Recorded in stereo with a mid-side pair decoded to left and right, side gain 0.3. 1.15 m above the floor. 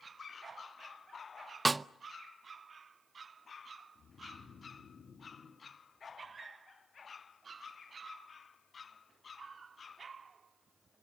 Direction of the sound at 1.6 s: 35° right.